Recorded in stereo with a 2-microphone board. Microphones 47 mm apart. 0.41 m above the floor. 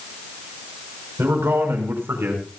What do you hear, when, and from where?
1.2 s a man speaking: 60° right (ahead or behind), 5.5 m